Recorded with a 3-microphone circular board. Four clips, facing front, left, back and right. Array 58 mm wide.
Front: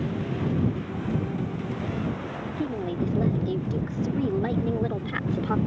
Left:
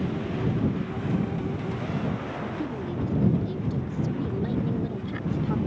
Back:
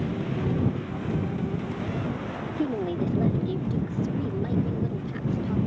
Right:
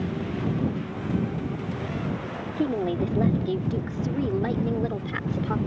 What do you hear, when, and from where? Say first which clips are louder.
2.6 s a woman speaking: right 10 dB, back 2 dB; 105° right; by 5.6 s 30° right